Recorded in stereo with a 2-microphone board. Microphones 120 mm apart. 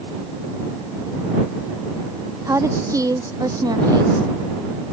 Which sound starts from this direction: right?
A woman speaking, at 2.5 s.